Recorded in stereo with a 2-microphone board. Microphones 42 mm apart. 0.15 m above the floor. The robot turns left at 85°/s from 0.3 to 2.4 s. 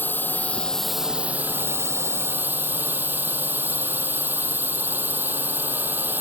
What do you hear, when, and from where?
0.0 s a drone: 50° left; by 6.2 s 130° right